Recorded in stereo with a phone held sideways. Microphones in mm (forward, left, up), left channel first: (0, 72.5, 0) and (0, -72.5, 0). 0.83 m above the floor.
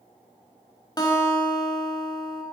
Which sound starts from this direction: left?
A guitar, at 1.0 s.